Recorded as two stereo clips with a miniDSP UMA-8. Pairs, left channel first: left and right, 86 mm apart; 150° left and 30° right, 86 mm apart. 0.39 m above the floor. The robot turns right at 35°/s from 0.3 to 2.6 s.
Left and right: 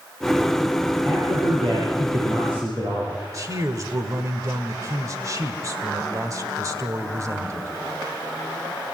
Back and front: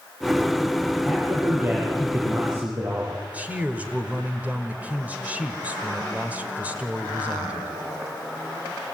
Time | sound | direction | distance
1.1 | a man speaking | 115° right | 8.5 m
3.3 | a man speaking | 90° right | 1.6 m